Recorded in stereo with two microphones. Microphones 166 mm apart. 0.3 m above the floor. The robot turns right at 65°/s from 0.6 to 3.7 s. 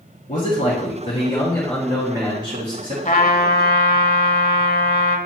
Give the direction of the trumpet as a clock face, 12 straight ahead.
10 o'clock.